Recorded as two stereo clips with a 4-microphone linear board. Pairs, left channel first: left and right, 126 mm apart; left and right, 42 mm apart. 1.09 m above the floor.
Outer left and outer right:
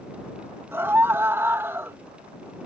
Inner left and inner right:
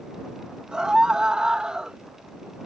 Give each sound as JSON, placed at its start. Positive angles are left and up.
{"t": 0.7, "sound": "a scream", "side_deg": -20}